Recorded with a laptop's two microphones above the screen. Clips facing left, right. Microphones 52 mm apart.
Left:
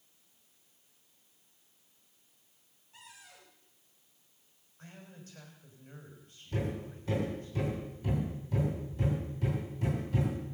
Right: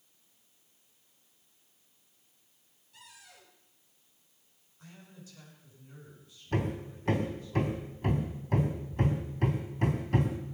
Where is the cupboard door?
25° left (ahead or behind), 5 m.